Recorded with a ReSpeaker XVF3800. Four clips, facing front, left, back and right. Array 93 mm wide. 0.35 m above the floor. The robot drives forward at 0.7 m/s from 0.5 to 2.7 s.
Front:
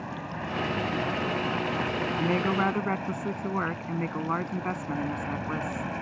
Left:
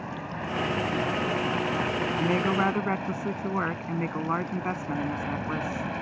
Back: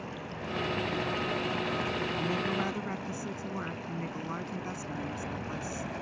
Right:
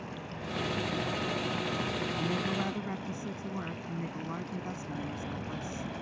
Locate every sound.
0.0 s an aircraft: 50° left; by 6.0 s 55° left
2.2 s a woman speaking: 50° left; by 5.9 s 55° left